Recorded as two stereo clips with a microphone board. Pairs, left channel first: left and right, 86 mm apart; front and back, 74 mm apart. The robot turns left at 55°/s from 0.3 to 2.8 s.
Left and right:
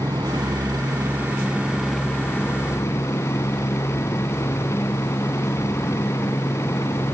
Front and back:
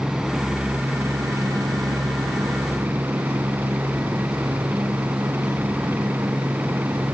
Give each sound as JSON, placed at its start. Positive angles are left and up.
{"t": 0.0, "sound": "a helicopter", "azimuth_deg": -95}